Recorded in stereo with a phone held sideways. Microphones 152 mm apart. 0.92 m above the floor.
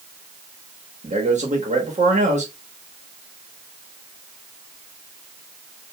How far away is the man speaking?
About 1.0 m.